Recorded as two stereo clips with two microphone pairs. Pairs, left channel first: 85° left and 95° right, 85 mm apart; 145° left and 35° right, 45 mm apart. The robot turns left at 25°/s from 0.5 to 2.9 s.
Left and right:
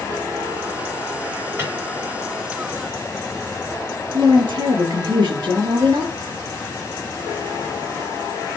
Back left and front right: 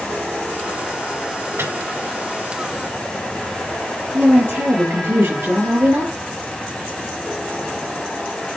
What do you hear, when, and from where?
1.6 s a microwave: 35° right, 3 m; by 1.7 s 40° right, 3 m
4.1 s a woman speaking: 65° right, 5.5 m